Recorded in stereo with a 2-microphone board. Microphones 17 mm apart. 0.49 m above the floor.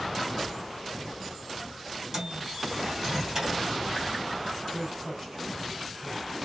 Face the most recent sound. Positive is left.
turn(degrees=-40)  # may be behind; listen again after turning